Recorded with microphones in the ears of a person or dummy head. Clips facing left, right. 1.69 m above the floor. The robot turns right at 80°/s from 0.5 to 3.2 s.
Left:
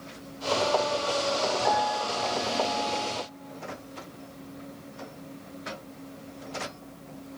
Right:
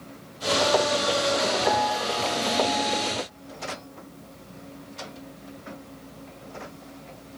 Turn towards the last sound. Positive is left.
turn(degrees=-150)